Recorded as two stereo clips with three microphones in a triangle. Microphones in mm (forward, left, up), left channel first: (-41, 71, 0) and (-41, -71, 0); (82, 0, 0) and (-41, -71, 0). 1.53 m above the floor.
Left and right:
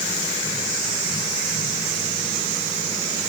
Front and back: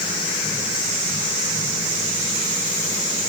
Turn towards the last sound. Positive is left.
No sound to turn to.